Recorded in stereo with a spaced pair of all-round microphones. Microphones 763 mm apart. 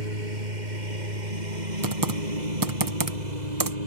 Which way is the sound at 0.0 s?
75° right (ahead or behind).